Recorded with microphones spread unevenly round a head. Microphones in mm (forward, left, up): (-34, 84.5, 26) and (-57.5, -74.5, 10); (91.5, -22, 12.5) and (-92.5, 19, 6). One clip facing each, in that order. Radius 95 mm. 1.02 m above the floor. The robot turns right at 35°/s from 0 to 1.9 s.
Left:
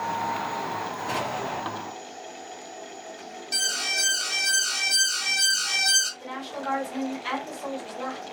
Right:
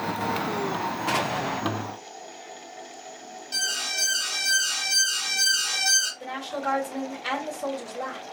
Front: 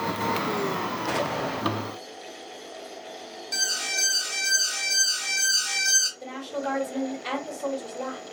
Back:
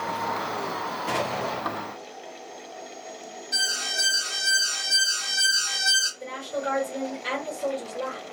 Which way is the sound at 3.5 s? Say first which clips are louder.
Left 2 dB, even; 5° left.